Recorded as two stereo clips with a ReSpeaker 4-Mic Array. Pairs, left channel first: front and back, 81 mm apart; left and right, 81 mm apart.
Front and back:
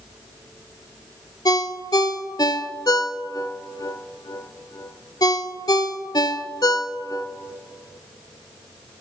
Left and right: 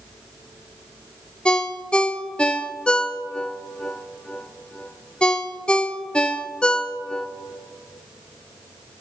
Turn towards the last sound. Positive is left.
turn(degrees=15)